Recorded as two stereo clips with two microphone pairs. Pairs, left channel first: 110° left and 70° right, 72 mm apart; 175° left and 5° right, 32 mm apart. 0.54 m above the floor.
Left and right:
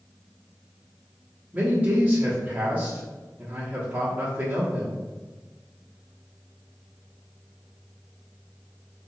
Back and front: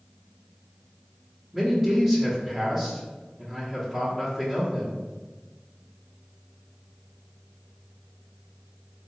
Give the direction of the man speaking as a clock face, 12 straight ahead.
2 o'clock.